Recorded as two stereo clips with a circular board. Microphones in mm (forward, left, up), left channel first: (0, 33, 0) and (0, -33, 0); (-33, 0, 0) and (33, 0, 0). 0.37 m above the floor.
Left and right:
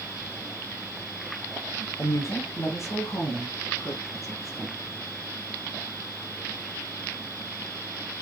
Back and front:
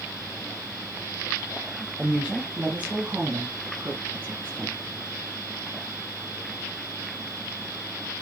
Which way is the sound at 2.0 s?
80° left.